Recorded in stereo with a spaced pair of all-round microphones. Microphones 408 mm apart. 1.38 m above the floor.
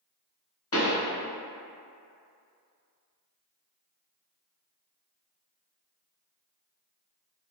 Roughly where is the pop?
Left.